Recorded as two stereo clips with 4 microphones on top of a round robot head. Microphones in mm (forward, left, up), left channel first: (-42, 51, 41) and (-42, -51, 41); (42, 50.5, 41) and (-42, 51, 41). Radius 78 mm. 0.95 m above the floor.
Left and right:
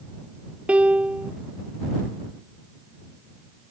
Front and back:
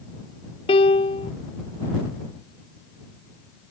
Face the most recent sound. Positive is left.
turn(degrees=-10)